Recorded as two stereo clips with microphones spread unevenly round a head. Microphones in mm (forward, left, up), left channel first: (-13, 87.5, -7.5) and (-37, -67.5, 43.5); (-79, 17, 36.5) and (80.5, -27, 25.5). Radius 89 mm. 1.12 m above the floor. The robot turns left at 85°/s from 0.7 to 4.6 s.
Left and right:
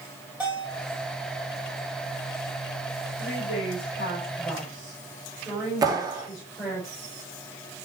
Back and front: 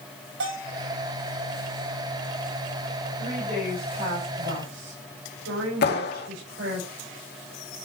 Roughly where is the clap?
Behind.